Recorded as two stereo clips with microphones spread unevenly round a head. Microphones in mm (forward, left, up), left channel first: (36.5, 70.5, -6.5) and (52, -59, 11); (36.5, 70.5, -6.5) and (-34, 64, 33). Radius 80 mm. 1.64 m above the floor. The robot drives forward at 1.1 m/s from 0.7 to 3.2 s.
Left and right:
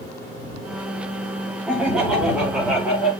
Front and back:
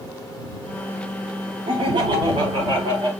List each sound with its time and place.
1.7 s laughter: 170° right, 5 m